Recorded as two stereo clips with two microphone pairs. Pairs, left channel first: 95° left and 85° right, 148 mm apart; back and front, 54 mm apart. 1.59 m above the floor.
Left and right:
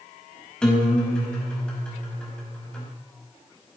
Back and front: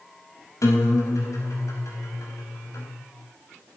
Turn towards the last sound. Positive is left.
turn(degrees=180)